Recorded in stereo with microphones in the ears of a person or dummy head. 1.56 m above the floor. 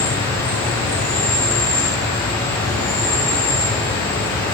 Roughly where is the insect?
Left.